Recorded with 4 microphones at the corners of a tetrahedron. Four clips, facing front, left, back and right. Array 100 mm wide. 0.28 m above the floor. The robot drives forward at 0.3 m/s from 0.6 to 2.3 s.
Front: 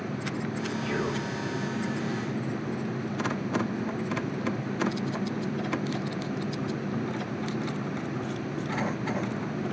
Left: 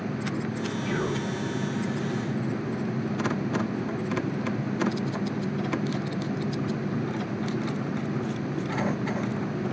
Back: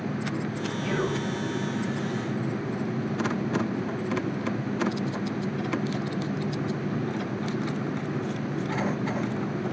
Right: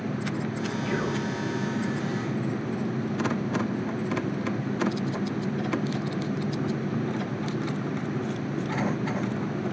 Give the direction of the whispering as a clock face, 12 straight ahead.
5 o'clock.